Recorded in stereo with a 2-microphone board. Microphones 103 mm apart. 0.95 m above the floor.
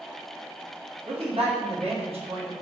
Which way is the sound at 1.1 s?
65° right (ahead or behind).